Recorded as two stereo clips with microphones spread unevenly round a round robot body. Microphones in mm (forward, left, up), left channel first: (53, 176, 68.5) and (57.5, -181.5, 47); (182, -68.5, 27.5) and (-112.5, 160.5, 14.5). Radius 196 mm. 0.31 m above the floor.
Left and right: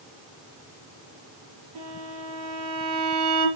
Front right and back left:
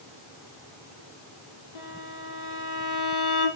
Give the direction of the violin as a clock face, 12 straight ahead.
2 o'clock.